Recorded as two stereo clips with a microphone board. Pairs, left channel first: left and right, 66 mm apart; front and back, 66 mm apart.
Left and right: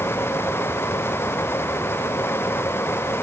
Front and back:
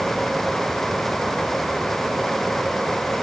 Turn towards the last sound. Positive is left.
No sound to turn to.